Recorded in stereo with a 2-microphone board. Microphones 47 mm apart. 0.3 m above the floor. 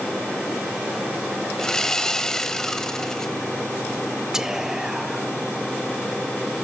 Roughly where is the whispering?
Centre.